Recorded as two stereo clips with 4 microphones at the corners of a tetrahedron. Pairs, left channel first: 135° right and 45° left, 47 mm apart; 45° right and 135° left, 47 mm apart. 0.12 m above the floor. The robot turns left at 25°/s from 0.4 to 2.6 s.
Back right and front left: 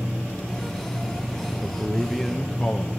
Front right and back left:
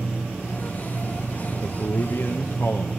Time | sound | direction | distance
1.6 | a man speaking | 30° right | 2.5 m